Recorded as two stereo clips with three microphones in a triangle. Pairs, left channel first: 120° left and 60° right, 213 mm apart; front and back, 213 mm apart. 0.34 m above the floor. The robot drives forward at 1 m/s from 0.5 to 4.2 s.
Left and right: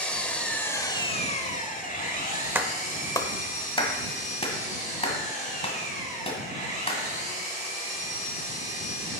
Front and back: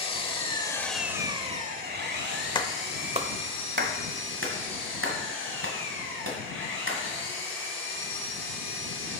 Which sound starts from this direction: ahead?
A clap, at 2.5 s.